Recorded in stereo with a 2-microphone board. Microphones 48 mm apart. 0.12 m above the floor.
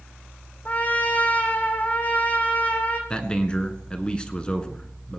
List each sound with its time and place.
0.7 s a trumpet: 35° left (ahead or behind), 2 m
3.1 s a man speaking: 20° left (ahead or behind), 1.7 m